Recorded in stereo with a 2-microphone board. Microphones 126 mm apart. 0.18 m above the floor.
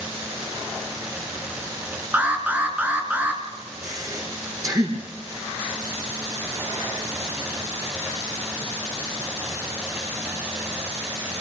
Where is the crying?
No crying in this recording.